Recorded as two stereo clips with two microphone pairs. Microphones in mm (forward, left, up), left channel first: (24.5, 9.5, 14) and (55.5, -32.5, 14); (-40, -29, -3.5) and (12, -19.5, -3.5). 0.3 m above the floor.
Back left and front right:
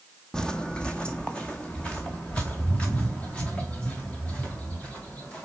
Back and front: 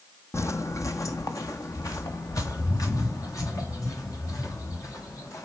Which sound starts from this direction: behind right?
Footsteps, at 0.3 s.